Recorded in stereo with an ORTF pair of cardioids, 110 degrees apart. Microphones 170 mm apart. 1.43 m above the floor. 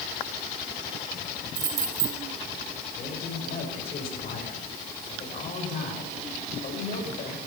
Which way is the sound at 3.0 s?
55° left.